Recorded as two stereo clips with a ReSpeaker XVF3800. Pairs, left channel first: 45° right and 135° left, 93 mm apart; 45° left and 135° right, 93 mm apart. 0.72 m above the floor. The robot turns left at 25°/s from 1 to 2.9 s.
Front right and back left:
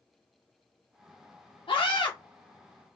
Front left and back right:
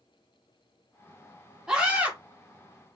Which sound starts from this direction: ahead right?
A scream, at 1.7 s.